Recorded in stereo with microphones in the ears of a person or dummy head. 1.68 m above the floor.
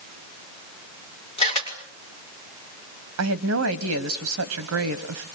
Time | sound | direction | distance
1.4 | a camera shutter | 35° left (ahead or behind) | 6 m
3.2 | a woman speaking | 75° right (ahead or behind) | 1.4 m